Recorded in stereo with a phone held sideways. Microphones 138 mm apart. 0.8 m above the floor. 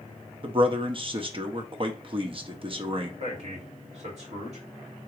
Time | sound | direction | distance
0.4 | a man speaking | 40° right (ahead or behind) | 0.7 m
3.2 | a man speaking | 50° right (ahead or behind) | 1.7 m